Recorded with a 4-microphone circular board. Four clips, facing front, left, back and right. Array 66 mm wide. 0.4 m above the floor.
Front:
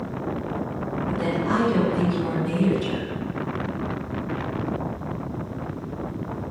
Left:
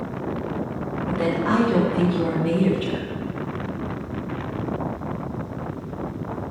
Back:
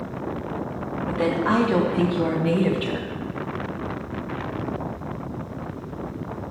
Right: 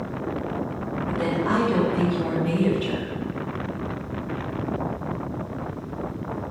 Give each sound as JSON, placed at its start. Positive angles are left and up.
{"t": 1.1, "sound": "a woman speaking", "azimuth_deg": 160, "distance_m": 2.5}